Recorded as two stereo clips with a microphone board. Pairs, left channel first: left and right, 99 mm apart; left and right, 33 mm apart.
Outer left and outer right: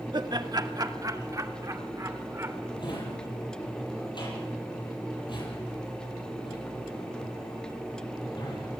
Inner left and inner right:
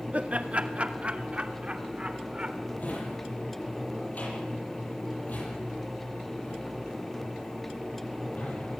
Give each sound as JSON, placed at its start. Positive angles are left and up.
{"t": 0.1, "sound": "laughter", "side_deg": -50, "distance_m": 1.6}
{"t": 2.8, "sound": "a drawer", "side_deg": 50, "distance_m": 10.0}